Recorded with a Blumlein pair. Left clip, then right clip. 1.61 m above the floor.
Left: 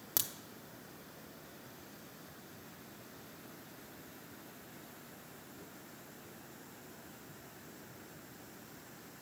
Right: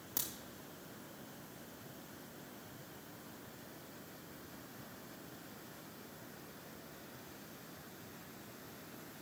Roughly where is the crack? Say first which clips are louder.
Left 4 dB; ahead left.